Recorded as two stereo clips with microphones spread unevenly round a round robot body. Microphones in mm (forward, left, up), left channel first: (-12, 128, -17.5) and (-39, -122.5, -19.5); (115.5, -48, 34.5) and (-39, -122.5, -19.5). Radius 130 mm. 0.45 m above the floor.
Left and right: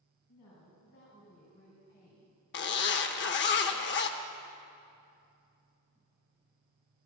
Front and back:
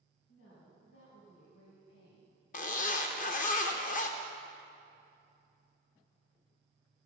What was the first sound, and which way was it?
A woman speaking, 50° left.